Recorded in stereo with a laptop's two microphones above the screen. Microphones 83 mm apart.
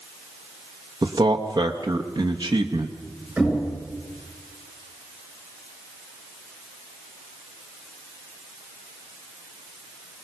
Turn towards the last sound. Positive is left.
turn(degrees=-10)  # may be behind; listen again after turning